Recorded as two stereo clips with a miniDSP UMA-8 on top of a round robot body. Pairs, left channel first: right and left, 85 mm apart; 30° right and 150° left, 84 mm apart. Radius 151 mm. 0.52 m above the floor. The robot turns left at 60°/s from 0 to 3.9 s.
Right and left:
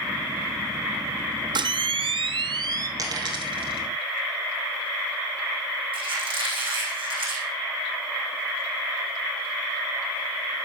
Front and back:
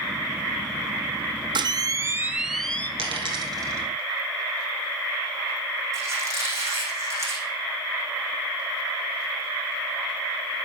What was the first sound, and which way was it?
A camera shutter, 120° left.